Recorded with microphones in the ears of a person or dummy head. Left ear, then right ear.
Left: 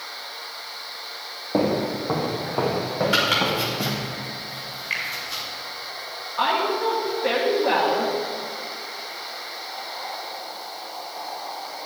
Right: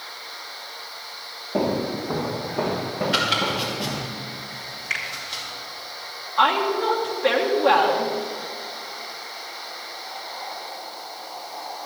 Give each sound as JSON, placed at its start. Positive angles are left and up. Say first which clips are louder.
{"t": 1.5, "sound": "footsteps", "louder": "left 1 dB", "side_deg": 40, "distance_m": 3.0}
{"t": 3.1, "sound": "chopping", "louder": "left 1 dB", "side_deg": 35, "distance_m": 3.5}
{"t": 4.9, "sound": "a finger snap", "louder": "even", "side_deg": -20, "distance_m": 3.0}
{"t": 6.4, "sound": "a woman speaking", "louder": "right 3 dB", "side_deg": -30, "distance_m": 1.5}